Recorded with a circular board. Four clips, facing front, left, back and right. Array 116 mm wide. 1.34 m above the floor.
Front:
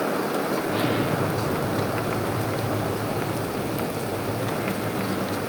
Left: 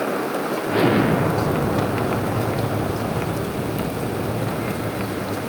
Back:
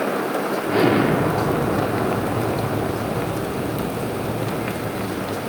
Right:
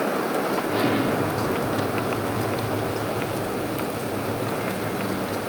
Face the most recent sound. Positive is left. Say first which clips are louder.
# left 8 dB, back 7 dB
turn(degrees=140)